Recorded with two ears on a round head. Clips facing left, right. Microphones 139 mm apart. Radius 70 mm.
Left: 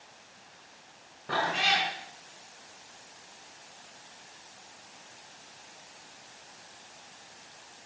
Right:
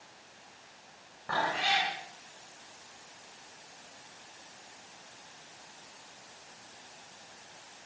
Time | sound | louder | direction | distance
1.3 | a cat meowing | left 1 dB | 70° left (ahead or behind) | 5.5 m